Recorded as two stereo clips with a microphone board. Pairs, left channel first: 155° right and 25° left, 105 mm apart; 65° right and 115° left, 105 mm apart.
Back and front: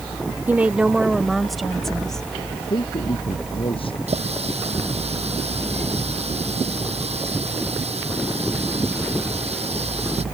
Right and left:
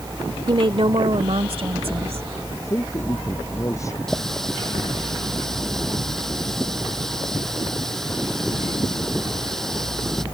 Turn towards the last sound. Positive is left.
turn(degrees=20)